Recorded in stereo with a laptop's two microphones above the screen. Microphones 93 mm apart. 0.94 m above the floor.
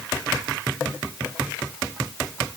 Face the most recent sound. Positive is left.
No sound to turn to.